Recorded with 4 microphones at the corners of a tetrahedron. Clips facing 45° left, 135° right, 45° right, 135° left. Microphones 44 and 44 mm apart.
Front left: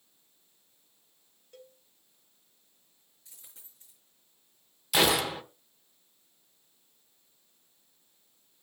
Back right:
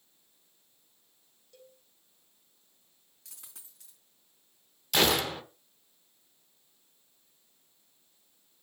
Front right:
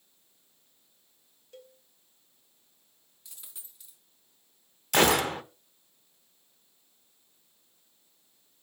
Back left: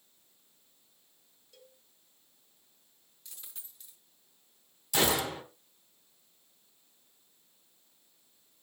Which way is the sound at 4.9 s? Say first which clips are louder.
Front left 1 dB, front right 6 dB; 35° right.